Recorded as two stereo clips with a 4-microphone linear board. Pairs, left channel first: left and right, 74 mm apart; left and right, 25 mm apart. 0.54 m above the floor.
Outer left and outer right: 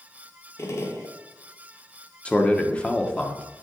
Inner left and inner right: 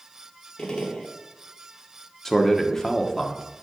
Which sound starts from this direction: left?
A gunshot, at 0.6 s.